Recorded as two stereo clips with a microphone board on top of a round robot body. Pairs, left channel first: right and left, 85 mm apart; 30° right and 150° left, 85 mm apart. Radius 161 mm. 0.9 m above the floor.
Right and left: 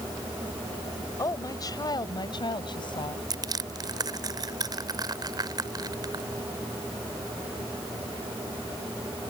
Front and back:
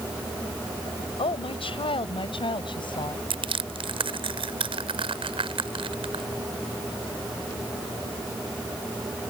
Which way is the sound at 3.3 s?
135° left.